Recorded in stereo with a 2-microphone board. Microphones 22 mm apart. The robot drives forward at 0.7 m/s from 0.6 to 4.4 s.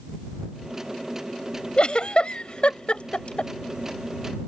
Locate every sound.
1.8 s a giggle: 45° left (ahead or behind); by 3.5 s 50° left (ahead or behind)